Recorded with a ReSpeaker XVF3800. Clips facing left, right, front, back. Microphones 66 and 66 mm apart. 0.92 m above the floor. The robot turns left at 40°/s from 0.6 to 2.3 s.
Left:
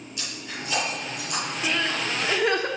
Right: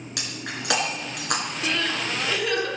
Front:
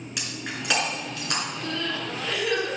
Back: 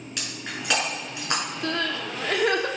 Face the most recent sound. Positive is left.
turn(degrees=140)